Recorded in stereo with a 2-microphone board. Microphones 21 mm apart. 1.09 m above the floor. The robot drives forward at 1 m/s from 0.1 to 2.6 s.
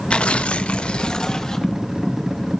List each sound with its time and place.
0.1 s tearing paper: 60° left (ahead or behind), 0.8 m; by 1.7 s 30° left (ahead or behind), 1.4 m